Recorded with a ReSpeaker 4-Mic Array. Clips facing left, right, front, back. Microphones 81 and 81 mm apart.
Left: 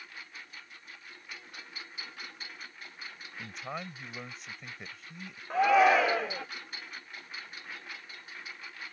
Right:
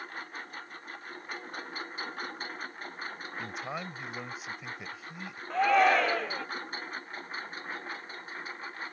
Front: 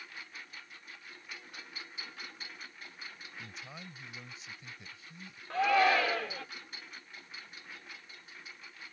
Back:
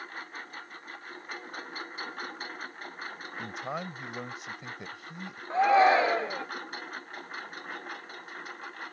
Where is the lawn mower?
135° right; by 8.9 s 145° right.